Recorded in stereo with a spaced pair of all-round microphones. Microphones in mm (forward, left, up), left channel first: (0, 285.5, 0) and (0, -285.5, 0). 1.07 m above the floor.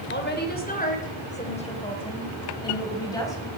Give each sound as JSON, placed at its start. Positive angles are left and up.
{"t": 0.1, "sound": "a woman speaking", "side_deg": 20, "distance_m": 3.5}